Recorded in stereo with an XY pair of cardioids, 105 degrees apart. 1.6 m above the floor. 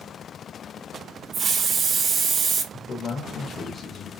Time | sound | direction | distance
1.3 | a hiss | 50° right | 1.0 m
2.7 | a man speaking | 40° left | 1.3 m